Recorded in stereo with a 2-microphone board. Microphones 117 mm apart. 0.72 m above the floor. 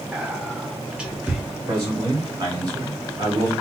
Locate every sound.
0.1 s whispering: 10° right (ahead or behind), 0.7 m
1.7 s a man speaking: 35° right (ahead or behind), 1.9 m